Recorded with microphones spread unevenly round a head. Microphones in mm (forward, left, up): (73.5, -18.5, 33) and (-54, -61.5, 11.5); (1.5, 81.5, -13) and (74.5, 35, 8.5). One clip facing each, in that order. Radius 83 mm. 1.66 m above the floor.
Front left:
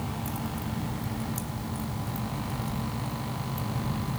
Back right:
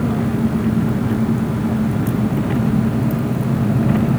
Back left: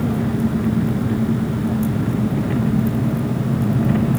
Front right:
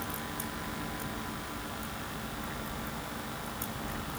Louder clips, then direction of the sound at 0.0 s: Back right 16 dB, back left 19 dB; 175° left.